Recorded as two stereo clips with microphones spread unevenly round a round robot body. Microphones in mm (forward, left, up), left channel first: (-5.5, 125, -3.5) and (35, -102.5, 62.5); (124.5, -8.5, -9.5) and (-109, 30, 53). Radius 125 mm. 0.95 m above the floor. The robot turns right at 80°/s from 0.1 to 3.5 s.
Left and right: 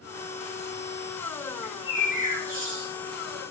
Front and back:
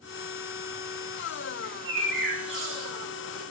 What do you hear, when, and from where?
1.6 s a bird: 160° left, 2.5 m; by 2.9 s 95° right, 2.5 m